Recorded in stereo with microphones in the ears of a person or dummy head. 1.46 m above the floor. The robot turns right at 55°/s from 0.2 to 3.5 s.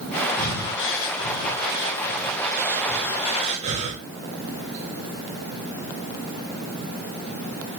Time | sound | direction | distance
0.4 | breathing | 40° left (ahead or behind) | 1.6 m